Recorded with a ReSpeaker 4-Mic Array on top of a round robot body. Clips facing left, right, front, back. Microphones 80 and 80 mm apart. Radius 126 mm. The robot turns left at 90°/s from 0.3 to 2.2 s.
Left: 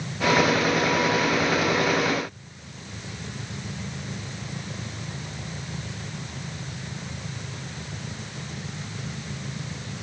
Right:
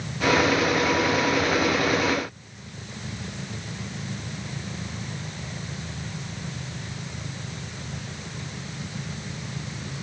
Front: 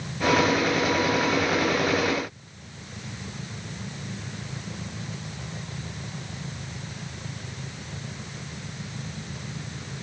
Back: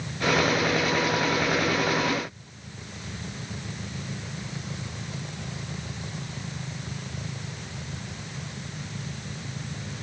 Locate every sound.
Only background noise.